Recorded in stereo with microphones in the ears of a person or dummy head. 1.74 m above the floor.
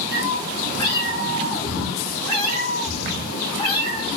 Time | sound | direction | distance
0.1 | a cat meowing | 20° left (ahead or behind) | 2.0 m